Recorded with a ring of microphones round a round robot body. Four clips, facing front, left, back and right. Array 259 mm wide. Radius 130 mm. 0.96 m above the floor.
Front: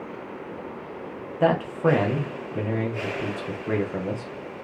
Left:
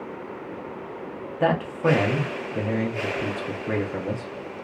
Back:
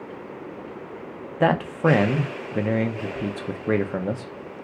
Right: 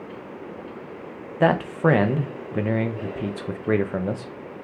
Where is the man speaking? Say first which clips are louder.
Right 3 dB, back 1 dB; 135° right, 0.5 m.